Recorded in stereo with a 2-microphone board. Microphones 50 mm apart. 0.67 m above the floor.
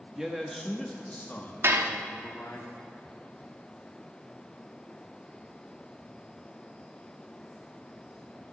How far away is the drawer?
No drawer in this recording.